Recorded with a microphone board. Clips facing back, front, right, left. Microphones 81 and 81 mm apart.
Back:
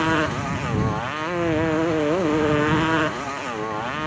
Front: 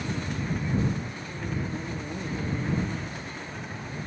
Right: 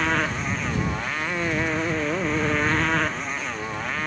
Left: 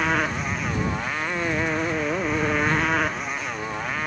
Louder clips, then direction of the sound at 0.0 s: Back 11 dB, left 1 dB; 175° left.